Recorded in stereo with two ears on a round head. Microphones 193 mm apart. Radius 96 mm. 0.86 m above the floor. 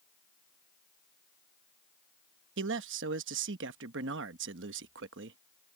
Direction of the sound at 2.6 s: 60° right (ahead or behind).